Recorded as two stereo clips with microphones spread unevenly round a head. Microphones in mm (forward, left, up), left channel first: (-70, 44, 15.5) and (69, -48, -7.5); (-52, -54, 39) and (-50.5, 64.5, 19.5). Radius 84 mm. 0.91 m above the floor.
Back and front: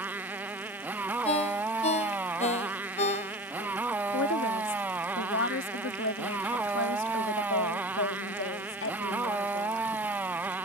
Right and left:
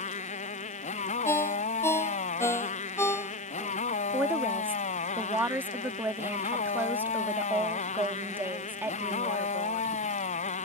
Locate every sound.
0.0 s a motorcycle: 115° right
1.2 s a ringtone: 160° right
4.1 s a woman speaking: 160° left